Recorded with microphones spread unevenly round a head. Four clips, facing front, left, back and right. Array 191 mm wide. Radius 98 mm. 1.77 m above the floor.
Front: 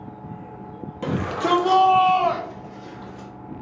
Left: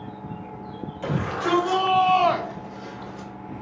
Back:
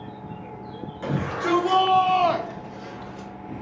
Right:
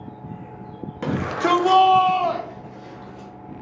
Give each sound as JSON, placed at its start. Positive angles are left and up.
{"t": 1.0, "sound": "a shout", "azimuth_deg": -50, "distance_m": 1.1}